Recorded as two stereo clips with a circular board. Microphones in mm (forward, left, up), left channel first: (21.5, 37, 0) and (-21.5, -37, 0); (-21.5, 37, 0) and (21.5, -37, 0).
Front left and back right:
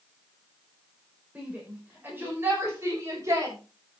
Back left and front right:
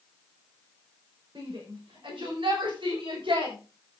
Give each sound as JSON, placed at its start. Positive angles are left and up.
{"t": 1.4, "sound": "a shout", "azimuth_deg": -45, "distance_m": 5.0}